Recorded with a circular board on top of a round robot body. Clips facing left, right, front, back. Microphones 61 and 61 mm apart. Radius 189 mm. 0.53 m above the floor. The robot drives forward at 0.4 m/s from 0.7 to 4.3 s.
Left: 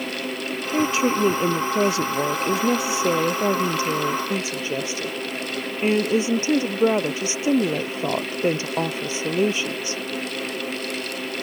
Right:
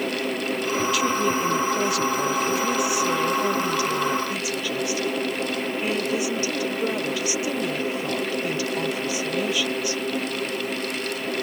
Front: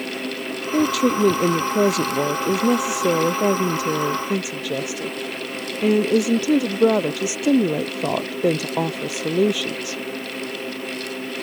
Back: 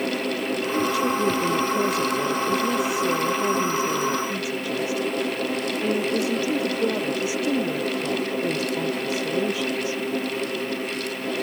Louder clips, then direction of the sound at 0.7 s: Left 4 dB, front 6 dB; 25° left.